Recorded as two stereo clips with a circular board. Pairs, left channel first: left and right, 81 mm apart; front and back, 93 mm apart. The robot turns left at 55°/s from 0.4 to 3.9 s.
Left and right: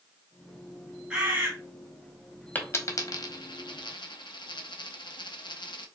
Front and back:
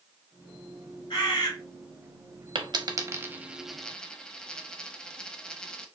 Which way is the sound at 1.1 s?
15° right.